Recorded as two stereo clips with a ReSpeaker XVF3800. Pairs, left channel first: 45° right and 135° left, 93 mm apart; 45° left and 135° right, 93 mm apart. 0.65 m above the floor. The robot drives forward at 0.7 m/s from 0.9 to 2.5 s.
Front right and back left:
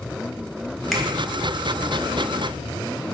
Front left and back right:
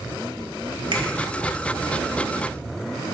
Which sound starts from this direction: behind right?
A finger snap, at 0.9 s.